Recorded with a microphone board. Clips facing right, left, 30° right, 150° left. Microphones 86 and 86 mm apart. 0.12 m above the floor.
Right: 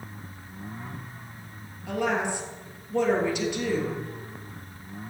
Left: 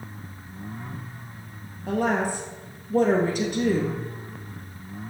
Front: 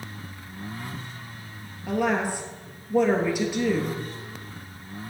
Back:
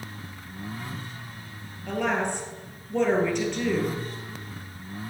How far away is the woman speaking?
About 2.5 m.